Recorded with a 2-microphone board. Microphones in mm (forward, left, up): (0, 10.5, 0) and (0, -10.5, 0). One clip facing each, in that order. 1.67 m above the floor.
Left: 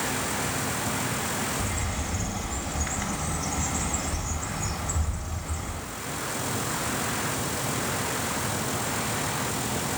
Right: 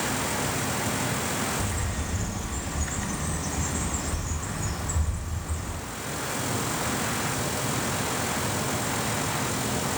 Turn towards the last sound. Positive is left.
turn(degrees=75)  # may be behind; listen again after turning